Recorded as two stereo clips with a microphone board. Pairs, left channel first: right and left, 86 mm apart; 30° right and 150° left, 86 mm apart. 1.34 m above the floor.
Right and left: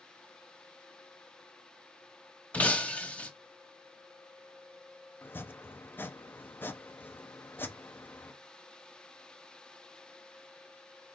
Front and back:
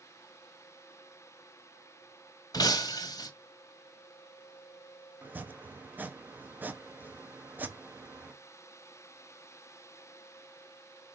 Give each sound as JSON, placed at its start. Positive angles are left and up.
{"t": 2.5, "sound": "breaking glass", "azimuth_deg": -25, "distance_m": 1.4}
{"t": 5.2, "sound": "chopping", "azimuth_deg": -150, "distance_m": 0.8}